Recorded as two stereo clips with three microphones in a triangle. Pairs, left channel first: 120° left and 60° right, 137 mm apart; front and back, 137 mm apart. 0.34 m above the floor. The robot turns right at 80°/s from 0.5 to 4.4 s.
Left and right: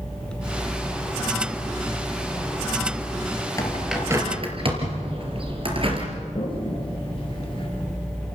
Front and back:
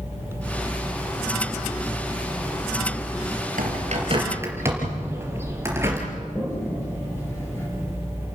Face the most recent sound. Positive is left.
turn(degrees=70)